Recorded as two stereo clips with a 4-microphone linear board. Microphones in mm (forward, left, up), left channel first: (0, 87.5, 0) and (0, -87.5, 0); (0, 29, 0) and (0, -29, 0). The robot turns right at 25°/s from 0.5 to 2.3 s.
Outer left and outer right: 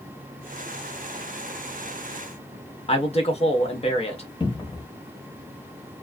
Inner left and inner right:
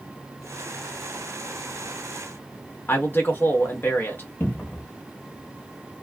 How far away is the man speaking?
About 1.1 m.